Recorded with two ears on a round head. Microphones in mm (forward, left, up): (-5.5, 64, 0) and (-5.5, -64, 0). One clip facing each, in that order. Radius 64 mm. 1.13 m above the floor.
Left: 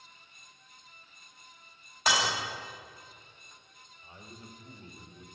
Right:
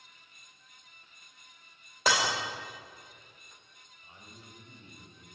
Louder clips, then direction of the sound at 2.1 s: Right 1 dB; 75° right (ahead or behind).